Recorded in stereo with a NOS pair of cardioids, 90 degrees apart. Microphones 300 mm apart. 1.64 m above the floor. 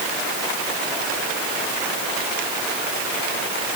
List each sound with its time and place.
Only background noise.